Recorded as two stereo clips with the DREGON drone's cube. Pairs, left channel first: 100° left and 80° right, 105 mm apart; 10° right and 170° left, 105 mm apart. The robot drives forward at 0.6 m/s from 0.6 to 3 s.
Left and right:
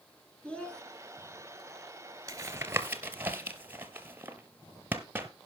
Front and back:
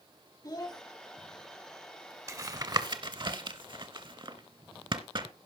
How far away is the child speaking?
About 0.9 m.